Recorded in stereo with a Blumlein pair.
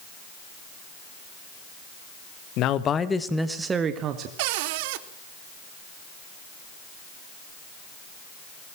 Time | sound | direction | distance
2.6 | a man speaking | 40° left | 1.5 m
4.4 | a cupboard door | 50° right | 1.3 m